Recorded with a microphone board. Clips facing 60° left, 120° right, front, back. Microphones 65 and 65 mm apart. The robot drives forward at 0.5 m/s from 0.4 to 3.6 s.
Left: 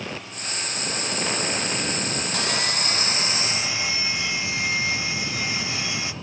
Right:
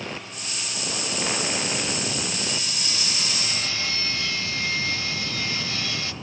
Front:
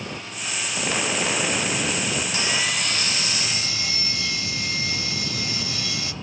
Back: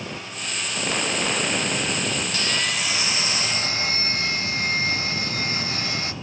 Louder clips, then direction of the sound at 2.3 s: Left 5 dB, even; 65° left.